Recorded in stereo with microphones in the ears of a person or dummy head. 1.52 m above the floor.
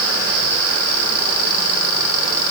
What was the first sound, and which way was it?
Only background noise.